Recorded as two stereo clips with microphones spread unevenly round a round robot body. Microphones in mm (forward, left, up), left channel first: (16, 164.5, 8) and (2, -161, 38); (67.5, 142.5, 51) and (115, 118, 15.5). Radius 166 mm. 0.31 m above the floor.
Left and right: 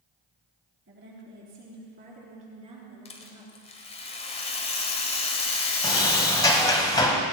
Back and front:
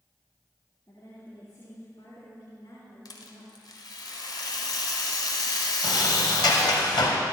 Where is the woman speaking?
145° right, 5 m; by 3.6 s 175° right, 4.5 m.